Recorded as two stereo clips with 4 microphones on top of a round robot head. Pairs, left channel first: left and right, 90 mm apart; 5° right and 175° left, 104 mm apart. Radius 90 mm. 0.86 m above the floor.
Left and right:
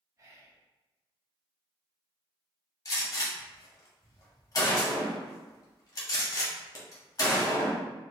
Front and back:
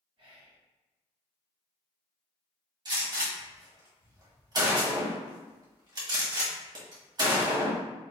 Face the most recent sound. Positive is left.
turn(degrees=135)